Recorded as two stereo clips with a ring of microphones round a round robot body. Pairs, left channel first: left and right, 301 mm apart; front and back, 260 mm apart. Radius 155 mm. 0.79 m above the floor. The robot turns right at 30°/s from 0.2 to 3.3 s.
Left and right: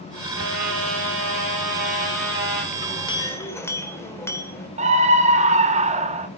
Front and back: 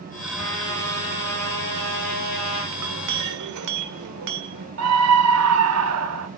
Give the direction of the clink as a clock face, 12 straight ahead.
7 o'clock.